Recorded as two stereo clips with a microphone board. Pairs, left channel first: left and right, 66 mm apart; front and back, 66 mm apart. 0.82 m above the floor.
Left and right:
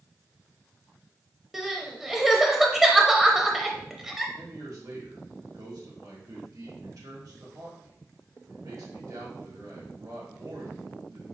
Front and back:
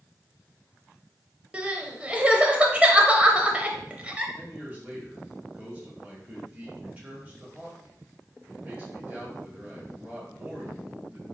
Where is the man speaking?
110° right, 1.6 m.